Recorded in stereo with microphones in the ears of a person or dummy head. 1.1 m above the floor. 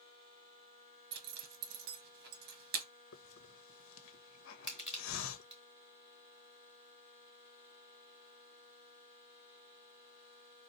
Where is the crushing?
5° right (ahead or behind), 3 m.